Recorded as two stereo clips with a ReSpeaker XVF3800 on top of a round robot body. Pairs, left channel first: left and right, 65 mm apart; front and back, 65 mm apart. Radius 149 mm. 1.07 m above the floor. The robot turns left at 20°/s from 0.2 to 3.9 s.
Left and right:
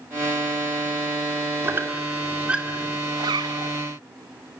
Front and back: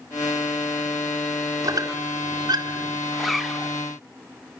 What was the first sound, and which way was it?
A squeak, 150° right.